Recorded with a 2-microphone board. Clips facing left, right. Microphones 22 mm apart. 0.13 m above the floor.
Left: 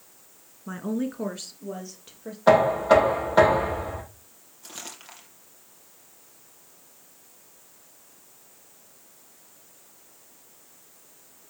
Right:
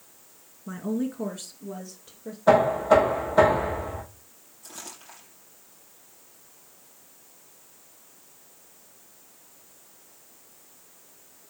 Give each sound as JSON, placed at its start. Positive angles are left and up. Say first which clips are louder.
{"t": 0.7, "sound": "a woman speaking", "louder": "even", "side_deg": 15, "distance_m": 1.4}
{"t": 2.5, "sound": "knocking", "louder": "left 1 dB", "side_deg": 60, "distance_m": 5.0}
{"t": 4.6, "sound": "crumpling", "louder": "left 2 dB", "side_deg": 50, "distance_m": 5.0}